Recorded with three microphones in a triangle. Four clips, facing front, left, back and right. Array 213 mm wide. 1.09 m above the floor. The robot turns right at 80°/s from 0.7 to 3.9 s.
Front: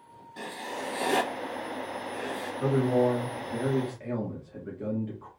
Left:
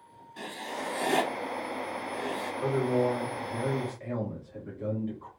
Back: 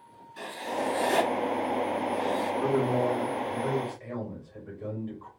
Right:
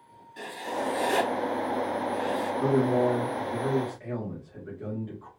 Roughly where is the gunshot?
I don't hear a gunshot.